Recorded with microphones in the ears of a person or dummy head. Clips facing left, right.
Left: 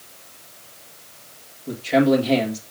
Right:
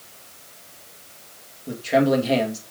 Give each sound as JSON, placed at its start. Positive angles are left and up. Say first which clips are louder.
{"t": 1.7, "sound": "a man speaking", "louder": "left 2 dB", "side_deg": -15, "distance_m": 2.0}